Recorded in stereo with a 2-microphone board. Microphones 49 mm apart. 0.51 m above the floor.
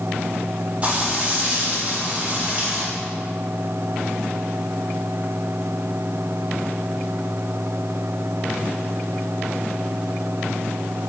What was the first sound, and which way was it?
Frying, 25° right (ahead or behind).